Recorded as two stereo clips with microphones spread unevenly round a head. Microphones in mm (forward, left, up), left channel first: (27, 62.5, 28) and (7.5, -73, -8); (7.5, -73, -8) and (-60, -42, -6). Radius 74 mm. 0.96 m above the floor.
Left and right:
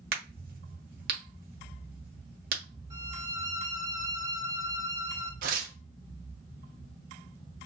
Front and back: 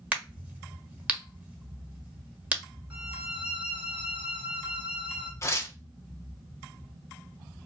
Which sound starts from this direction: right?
Tearing paper, at 5.4 s.